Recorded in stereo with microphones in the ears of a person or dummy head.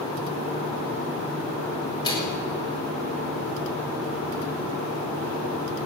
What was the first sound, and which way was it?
A microwave, 30° left (ahead or behind).